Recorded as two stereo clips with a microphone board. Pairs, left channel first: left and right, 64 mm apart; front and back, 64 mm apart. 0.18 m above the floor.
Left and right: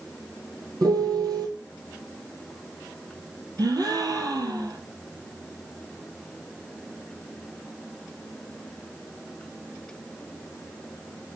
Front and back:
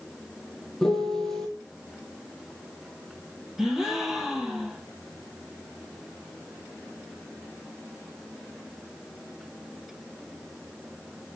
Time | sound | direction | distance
0.8 | a piano | 85° right | 1.4 m
3.6 | a gasp | 95° right | 1.0 m